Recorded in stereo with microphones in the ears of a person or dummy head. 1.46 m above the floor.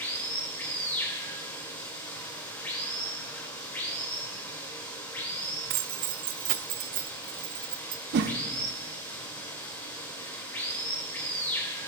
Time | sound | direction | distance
0.0 | running water | 15° left (ahead or behind) | 1.5 m
5.7 | keys jangling | 45° right (ahead or behind) | 0.5 m
8.1 | a whoosh | 50° right (ahead or behind) | 0.8 m